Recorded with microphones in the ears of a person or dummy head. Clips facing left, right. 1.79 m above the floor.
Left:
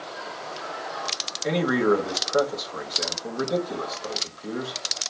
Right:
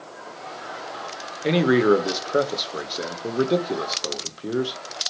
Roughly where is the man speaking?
Right.